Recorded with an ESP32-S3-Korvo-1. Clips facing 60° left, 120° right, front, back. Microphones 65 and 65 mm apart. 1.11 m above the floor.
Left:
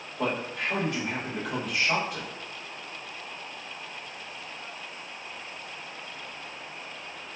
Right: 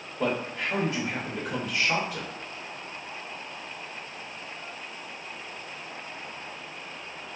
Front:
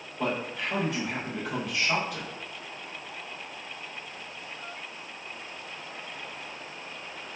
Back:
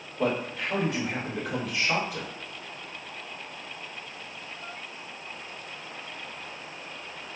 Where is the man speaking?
100° left, 1.7 m.